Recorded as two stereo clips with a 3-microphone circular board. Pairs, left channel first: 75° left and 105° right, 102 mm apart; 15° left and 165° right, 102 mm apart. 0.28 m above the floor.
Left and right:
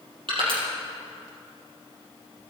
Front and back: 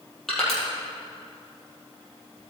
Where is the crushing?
70° right, 4.5 m.